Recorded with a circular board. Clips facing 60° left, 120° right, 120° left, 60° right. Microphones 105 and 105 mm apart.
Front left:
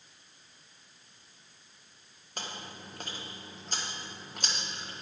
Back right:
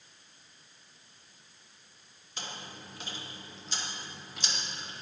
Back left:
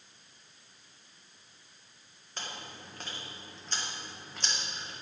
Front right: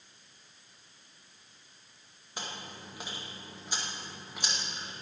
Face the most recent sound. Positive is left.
turn(degrees=20)